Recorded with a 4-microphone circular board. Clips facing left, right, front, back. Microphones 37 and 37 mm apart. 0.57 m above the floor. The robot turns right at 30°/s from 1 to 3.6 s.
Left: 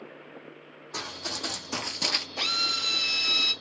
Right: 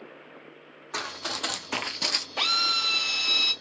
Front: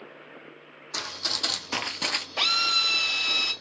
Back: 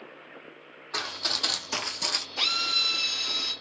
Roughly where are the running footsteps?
Behind right.